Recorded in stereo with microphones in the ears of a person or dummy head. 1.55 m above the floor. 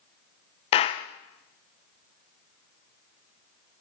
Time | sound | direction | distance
0.7 | a clap | 35° left (ahead or behind) | 0.8 m